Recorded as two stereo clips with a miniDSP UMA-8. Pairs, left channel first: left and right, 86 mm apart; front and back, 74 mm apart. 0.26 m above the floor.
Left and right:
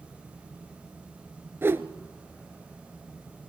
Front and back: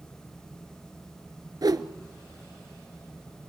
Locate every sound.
1.6 s a whoosh: 150° right, 1.1 m